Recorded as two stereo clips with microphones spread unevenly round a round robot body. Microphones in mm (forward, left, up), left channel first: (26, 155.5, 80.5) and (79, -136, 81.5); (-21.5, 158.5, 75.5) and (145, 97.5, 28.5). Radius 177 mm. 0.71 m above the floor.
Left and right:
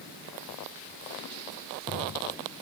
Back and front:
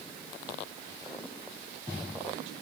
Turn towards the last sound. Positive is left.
No sound to turn to.